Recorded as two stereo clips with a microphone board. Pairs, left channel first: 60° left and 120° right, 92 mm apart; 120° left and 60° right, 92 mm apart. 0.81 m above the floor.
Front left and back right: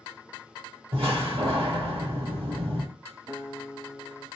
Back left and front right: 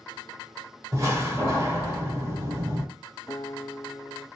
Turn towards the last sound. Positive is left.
turn(degrees=175)